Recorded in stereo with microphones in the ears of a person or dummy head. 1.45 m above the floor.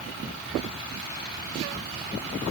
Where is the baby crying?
No baby crying in this recording.